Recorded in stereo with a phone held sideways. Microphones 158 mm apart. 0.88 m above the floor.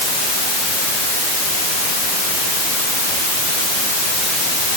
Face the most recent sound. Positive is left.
No sound to turn to.